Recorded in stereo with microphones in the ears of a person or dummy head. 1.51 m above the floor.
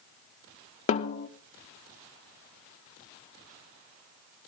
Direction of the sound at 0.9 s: 35° left (ahead or behind).